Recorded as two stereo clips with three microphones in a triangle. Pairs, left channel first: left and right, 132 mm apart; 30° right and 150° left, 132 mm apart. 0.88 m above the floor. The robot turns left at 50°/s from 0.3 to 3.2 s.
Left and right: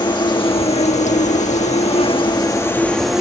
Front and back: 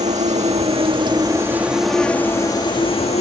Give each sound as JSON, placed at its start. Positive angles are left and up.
{"t": 0.0, "sound": "an insect", "azimuth_deg": 140}